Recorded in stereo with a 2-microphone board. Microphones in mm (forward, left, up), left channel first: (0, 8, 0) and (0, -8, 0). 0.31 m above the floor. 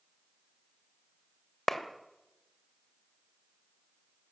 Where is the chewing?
I don't hear chewing.